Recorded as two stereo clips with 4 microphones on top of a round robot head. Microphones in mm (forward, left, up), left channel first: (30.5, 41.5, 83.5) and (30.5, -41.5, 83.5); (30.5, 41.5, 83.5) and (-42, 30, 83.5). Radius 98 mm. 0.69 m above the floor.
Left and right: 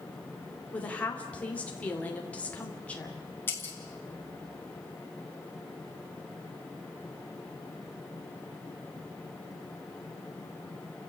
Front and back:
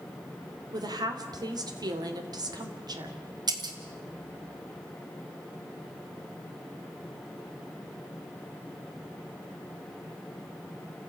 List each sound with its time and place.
0.7 s a woman speaking: 165° left, 3 m
3.5 s breaking glass: 155° left, 2 m